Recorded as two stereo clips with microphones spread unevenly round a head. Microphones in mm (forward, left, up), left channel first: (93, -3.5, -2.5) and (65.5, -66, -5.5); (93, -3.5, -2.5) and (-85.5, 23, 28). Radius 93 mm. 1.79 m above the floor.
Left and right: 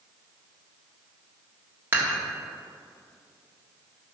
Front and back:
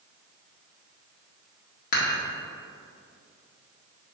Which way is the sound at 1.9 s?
55° right.